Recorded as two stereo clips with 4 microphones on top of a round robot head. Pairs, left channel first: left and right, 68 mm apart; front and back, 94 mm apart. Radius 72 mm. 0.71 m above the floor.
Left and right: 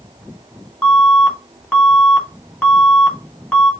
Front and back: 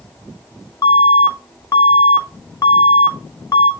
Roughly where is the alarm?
Ahead left.